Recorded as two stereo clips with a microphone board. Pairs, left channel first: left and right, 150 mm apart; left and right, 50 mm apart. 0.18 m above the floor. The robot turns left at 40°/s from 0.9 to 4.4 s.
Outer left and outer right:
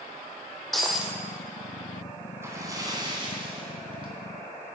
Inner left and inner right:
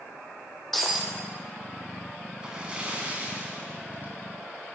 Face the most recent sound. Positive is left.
turn(degrees=-110)